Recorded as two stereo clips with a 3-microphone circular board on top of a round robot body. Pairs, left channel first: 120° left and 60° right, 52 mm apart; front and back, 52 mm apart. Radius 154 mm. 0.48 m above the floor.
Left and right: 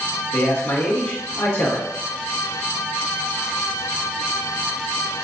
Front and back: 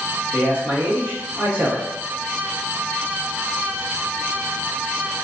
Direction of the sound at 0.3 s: 120° left.